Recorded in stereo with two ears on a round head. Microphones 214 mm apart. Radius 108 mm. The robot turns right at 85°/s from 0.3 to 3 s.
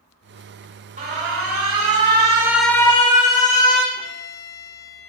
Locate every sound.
1.0 s an alarm: 140° right, 1.9 m; by 3.9 s 30° left, 1.9 m
4.0 s a violin: 15° left (ahead or behind), 5.5 m